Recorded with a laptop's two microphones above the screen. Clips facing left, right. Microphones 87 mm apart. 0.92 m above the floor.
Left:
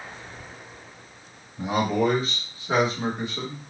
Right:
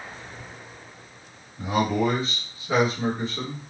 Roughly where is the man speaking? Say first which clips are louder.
Even; left.